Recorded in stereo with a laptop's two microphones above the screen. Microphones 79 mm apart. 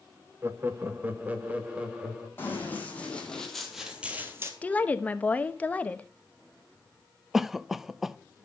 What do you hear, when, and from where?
0.4 s laughter: 30° right (ahead or behind), 0.9 m; by 2.3 s 15° right (ahead or behind), 1.9 m
2.4 s running footsteps: 25° left (ahead or behind), 3 m; by 4.5 s 35° right (ahead or behind), 1.7 m
4.6 s a woman speaking: 20° left (ahead or behind), 1.0 m
7.3 s a cough: 5° right (ahead or behind), 0.7 m